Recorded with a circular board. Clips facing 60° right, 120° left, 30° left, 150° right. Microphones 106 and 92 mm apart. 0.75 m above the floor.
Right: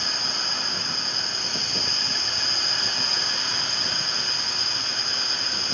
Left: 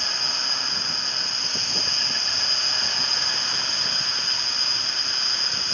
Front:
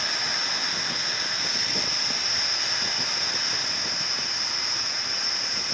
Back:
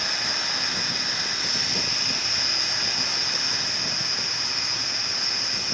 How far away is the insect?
About 0.9 m.